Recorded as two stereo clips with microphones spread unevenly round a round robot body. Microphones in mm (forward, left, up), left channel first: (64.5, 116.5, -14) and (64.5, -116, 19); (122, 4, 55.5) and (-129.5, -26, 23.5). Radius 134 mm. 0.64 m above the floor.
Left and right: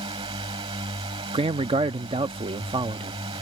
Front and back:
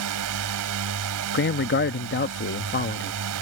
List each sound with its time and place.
0.0 s a drone: 165° right
1.3 s a man speaking: 25° right